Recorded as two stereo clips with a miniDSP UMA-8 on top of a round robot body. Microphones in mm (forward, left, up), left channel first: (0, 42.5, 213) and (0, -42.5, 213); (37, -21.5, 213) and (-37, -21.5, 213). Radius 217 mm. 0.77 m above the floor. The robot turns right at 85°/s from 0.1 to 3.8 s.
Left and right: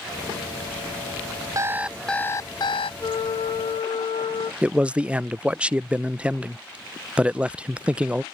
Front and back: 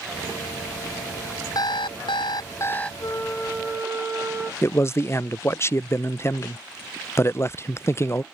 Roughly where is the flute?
Ahead left.